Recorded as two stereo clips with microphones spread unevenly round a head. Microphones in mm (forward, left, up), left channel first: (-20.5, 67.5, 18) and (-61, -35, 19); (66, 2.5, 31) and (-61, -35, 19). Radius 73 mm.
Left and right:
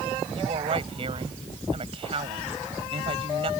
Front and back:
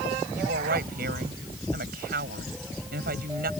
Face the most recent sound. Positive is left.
turn(degrees=-150)